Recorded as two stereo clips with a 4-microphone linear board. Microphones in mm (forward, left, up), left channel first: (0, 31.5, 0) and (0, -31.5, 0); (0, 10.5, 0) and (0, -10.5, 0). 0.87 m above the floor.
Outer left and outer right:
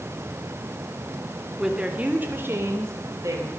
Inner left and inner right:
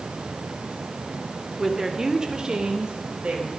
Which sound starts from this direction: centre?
A woman speaking, at 1.6 s.